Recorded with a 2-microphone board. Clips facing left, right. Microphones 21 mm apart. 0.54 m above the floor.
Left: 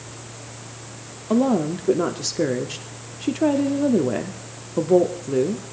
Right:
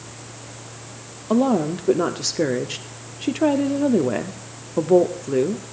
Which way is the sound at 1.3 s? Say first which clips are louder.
Right 1 dB; 10° right (ahead or behind).